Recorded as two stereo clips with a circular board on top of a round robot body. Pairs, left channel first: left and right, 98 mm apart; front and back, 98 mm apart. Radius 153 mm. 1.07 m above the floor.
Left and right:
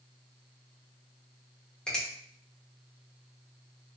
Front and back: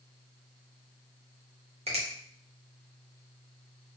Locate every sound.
1.9 s a finger snap: 170° left, 0.8 m